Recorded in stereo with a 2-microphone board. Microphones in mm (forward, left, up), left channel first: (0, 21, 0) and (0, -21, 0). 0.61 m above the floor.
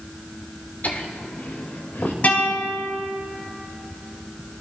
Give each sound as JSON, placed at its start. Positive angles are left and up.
{"t": 0.8, "sound": "laughter", "side_deg": 45, "distance_m": 1.8}
{"t": 2.2, "sound": "a guitar", "side_deg": 40, "distance_m": 5.0}